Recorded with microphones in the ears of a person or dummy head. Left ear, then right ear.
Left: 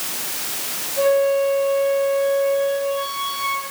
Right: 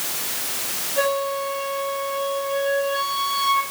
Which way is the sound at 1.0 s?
65° right (ahead or behind).